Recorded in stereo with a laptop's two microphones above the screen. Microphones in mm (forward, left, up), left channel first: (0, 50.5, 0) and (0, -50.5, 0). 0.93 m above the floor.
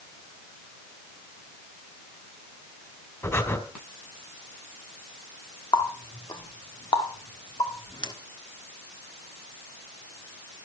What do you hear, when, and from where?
3.2 s breathing: 30° left (ahead or behind), 2.5 m
5.7 s a running tap: 45° left (ahead or behind), 1.3 m